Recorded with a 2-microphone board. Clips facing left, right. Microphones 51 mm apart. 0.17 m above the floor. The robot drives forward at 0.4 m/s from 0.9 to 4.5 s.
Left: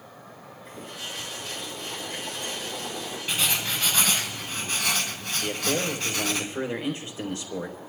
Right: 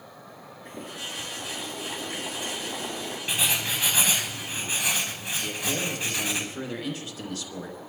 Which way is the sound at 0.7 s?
70° right (ahead or behind).